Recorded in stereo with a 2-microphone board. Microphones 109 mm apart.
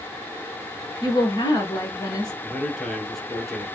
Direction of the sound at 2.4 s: Centre (ahead or behind).